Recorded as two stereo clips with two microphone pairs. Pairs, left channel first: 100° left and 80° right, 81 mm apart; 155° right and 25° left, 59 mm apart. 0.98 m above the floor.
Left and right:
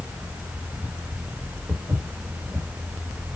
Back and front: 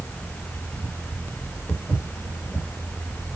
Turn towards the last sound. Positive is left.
turn(degrees=-120)